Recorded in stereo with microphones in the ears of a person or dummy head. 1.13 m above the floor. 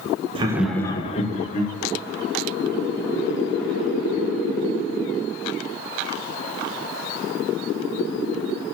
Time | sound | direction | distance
0.3 | laughter | 30° right (ahead or behind) | 0.5 m